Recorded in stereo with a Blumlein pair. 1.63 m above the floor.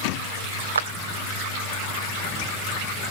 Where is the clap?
70° right.